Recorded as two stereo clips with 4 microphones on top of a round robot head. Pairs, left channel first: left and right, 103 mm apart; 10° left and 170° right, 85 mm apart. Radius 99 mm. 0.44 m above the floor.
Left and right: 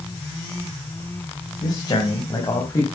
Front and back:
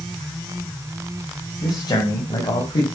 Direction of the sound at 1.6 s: 50° left.